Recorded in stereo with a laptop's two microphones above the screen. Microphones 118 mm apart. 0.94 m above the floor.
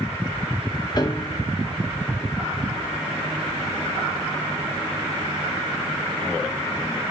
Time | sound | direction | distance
1.0 | a piano | 35° left (ahead or behind) | 0.9 m